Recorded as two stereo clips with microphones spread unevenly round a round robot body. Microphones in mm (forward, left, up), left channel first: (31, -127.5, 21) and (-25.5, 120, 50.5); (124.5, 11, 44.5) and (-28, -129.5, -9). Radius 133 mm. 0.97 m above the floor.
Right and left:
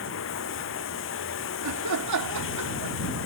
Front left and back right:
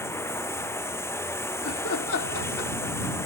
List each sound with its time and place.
0.0 s running water: 35° right
1.6 s laughter: 85° left